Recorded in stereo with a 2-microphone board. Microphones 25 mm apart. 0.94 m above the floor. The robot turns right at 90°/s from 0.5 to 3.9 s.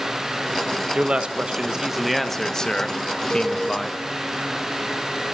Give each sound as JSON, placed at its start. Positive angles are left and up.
{"t": 0.9, "sound": "a man speaking", "azimuth_deg": -105, "distance_m": 0.8}
{"t": 3.3, "sound": "a cowbell", "side_deg": 30, "distance_m": 8.5}